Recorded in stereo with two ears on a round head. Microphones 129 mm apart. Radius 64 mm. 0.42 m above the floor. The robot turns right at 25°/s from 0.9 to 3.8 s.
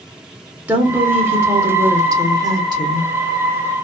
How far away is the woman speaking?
About 0.9 m.